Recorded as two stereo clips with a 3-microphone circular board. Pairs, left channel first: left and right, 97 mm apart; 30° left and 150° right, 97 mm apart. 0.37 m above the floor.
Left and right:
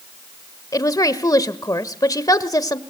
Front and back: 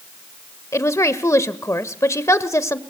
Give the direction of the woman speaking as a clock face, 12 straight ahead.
10 o'clock.